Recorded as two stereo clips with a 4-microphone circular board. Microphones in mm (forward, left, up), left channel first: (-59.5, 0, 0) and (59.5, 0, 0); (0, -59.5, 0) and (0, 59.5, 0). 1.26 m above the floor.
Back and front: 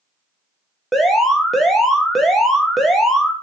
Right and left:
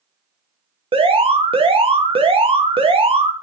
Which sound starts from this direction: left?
An alarm, at 0.9 s.